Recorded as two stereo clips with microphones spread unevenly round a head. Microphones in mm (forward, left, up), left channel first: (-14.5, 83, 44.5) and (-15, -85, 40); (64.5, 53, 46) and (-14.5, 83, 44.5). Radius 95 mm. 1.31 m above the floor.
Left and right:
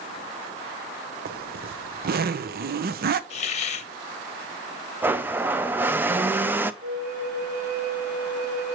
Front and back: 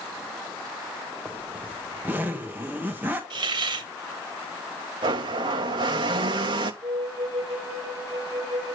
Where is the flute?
130° right, 5 m.